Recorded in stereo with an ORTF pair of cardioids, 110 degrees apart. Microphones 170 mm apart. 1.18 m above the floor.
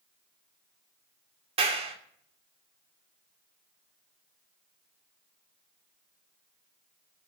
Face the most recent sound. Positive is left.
turn(degrees=-35)